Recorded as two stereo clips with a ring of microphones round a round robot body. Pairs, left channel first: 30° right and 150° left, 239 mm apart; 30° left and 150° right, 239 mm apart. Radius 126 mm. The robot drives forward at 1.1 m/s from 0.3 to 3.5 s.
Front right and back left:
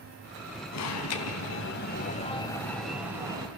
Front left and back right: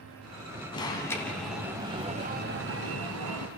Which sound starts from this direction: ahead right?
An alarm, at 0.7 s.